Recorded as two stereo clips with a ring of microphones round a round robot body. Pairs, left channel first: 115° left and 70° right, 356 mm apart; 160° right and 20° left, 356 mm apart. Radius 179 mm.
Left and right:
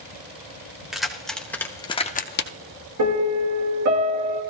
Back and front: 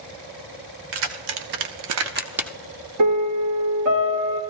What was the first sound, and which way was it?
Keys jangling, 20° left.